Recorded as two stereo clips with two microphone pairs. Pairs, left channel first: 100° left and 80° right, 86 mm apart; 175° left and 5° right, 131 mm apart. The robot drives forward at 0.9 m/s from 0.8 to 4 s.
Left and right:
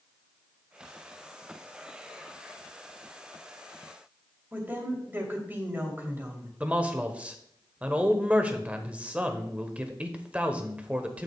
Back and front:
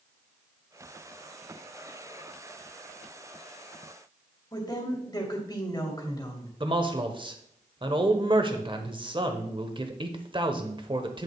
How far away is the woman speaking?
About 2 m.